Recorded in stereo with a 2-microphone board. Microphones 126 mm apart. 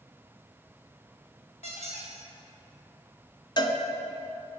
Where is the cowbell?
40° left (ahead or behind), 0.7 m.